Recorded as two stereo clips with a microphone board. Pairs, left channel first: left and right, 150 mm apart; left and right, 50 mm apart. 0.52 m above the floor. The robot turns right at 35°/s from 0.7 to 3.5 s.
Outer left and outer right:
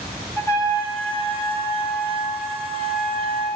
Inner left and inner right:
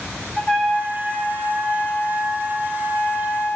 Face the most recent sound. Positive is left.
turn(degrees=115)